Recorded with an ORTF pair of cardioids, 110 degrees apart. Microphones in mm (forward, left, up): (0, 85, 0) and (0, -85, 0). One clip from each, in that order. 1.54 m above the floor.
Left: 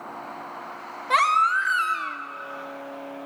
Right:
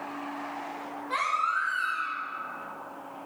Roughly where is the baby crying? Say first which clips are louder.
Left 8 dB; ahead left.